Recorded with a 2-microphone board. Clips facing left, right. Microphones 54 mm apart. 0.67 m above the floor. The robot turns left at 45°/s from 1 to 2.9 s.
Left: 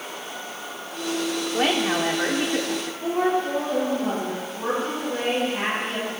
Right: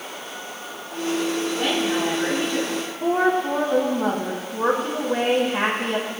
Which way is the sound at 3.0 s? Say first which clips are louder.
Right 3 dB; 80° right.